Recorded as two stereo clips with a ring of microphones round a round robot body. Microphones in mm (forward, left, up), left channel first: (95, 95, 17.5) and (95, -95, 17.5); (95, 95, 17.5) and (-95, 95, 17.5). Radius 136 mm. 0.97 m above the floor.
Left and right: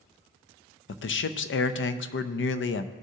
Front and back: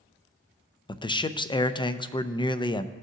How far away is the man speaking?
About 0.6 m.